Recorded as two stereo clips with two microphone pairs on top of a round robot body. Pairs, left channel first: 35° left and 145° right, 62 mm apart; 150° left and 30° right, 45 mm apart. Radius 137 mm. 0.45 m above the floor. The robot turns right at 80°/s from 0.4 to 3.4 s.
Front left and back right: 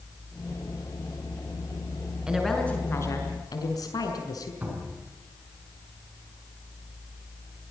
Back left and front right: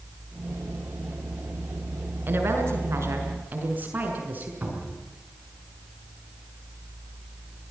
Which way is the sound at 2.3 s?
70° right.